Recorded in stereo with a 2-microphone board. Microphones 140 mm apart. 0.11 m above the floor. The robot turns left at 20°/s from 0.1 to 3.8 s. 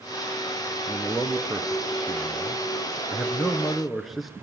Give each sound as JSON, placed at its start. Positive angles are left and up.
{"t": 0.9, "sound": "a man speaking", "side_deg": -15, "distance_m": 1.3}